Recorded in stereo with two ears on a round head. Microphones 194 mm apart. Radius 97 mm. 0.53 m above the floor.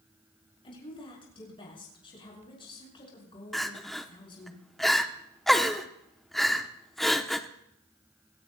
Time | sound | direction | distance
0.6 | a woman speaking | 25° left (ahead or behind) | 6 m
3.5 | crying | centre (ahead or behind) | 0.9 m